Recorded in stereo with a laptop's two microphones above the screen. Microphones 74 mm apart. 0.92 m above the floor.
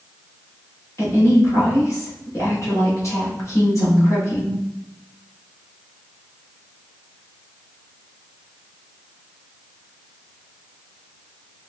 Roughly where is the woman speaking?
Left.